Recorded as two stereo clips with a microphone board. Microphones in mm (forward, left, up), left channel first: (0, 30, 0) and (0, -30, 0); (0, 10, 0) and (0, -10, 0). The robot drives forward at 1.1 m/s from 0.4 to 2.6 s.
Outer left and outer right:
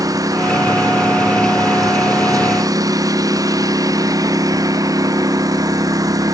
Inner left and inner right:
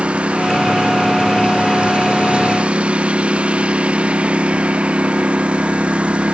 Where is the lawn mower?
85° right; by 6.4 s 90° right.